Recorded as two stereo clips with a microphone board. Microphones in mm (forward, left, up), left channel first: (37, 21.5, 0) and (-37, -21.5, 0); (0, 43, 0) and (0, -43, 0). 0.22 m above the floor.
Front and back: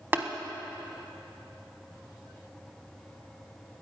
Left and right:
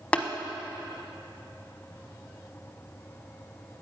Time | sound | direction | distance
0.1 | tapping | 155° left | 1.0 m